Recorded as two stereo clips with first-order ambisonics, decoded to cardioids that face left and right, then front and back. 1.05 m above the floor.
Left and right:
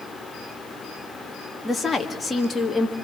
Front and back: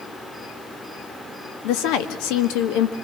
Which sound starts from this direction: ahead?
A woman speaking, at 1.6 s.